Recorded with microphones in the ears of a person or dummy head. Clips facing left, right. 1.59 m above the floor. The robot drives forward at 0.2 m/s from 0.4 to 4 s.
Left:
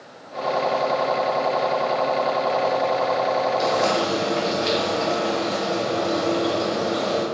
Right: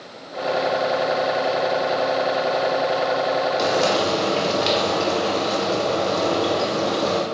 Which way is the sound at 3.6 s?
70° right (ahead or behind).